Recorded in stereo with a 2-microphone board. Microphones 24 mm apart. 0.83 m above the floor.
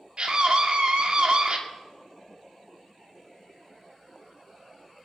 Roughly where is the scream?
Right.